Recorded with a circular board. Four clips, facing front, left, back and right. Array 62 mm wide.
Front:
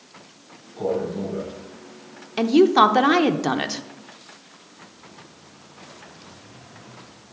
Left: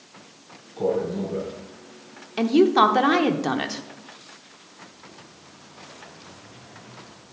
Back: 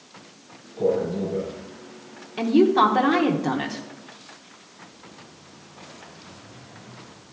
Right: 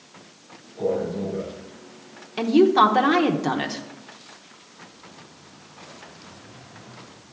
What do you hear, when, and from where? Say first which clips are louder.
0.8 s a man speaking: left 1 dB, back 2 dB; 70° left, 4.5 m
2.4 s a woman speaking: right 1 dB, front 2 dB; 10° left, 0.7 m